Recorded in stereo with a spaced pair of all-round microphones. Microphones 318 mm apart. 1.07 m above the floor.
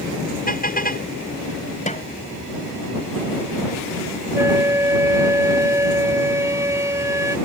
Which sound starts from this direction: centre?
A flute, at 4.3 s.